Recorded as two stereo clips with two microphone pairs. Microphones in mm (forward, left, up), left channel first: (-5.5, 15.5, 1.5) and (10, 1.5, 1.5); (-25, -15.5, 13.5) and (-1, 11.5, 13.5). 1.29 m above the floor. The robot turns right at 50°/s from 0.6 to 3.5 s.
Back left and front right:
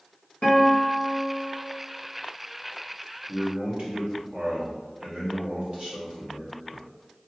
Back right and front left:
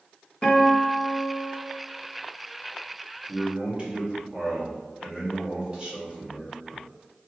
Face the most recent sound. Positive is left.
turn(degrees=-20)